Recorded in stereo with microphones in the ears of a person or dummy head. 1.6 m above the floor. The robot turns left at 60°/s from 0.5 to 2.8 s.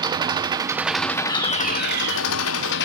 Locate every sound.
0.0 s an engine running: 155° right, 1.0 m; by 2.9 s 65° left, 1.0 m
1.3 s a fire alarm: 25° left, 5 m; by 2.2 s 25° right, 5 m